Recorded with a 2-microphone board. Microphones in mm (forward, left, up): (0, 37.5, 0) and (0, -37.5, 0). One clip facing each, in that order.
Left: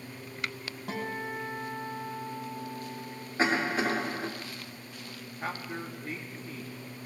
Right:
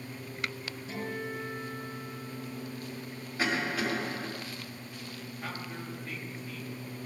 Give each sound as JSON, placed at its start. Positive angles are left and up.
{"t": 0.9, "sound": "a guitar", "side_deg": 70, "distance_m": 2.0}
{"t": 3.4, "sound": "a cough", "side_deg": 30, "distance_m": 2.0}
{"t": 5.4, "sound": "a man speaking", "side_deg": 30, "distance_m": 1.1}